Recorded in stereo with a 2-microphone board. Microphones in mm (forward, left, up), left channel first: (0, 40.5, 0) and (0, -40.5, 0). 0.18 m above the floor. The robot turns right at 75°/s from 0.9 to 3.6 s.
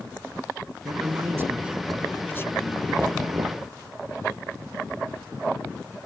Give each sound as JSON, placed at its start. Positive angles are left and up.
{"t": 0.8, "sound": "a man speaking", "azimuth_deg": -75}
{"t": 3.0, "sound": "knocking", "azimuth_deg": -175}